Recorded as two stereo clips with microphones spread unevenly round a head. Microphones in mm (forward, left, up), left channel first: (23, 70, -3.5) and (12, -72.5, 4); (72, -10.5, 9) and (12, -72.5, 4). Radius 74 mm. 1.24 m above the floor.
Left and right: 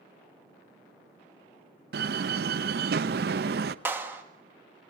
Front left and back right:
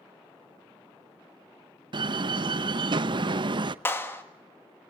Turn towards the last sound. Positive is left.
turn(degrees=-20)